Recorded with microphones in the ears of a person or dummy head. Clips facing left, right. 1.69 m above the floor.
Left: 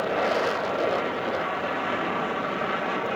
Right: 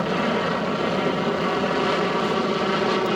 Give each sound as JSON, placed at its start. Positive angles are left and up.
{"t": 0.0, "sound": "an aircraft", "side_deg": -55}